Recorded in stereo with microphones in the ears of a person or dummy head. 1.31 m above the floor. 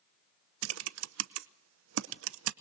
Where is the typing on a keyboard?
75° right (ahead or behind), 0.7 m.